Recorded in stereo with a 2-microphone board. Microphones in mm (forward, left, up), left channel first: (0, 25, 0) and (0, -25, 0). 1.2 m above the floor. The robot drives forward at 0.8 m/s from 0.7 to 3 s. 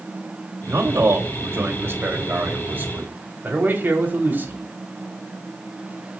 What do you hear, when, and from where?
0.7 s a man speaking: 70° right (ahead or behind), 2.5 m; by 4.6 s 45° right (ahead or behind), 3.5 m